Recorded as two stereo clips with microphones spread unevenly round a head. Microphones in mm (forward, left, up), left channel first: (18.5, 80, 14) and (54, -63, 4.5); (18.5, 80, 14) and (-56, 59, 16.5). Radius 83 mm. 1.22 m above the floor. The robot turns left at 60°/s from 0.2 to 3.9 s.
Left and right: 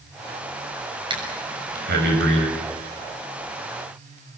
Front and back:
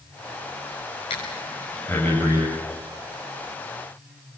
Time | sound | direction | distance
1.1 | breathing | 15° right | 6.5 m